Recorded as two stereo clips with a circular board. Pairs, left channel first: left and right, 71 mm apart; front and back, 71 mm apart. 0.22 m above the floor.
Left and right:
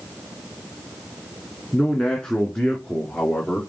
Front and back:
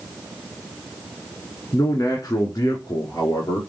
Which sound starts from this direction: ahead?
A man speaking, at 1.7 s.